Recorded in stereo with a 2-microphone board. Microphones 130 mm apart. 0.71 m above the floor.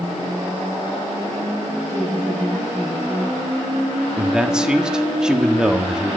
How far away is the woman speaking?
About 10 m.